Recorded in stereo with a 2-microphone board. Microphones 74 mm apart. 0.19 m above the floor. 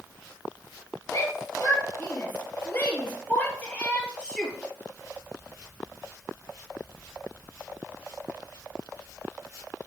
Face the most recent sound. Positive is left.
turn(degrees=10)  # may be behind; listen again after turning